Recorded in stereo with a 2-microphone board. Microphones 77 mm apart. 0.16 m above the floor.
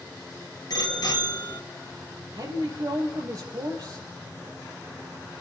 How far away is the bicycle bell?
About 3 m.